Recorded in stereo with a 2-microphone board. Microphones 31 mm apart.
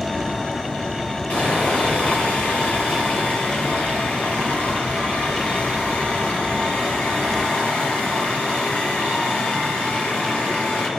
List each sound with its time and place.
1.3 s sawing: 55° left (ahead or behind), 7 m